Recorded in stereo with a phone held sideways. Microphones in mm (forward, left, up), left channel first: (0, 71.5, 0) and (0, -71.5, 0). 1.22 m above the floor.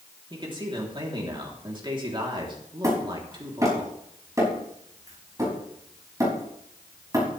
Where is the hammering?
25° right (ahead or behind), 6 m.